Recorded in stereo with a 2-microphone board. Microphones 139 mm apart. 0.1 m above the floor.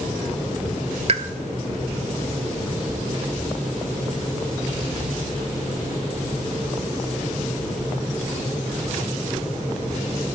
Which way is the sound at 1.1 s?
45° right (ahead or behind).